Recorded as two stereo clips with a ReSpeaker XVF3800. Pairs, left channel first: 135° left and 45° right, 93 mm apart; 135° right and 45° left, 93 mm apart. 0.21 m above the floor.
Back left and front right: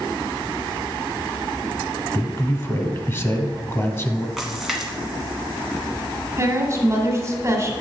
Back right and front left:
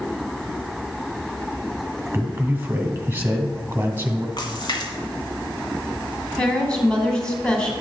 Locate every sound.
2.1 s a man speaking: 100° left, 1.2 m
4.4 s a splash: 130° right, 1.6 m
6.4 s a woman speaking: 60° right, 1.7 m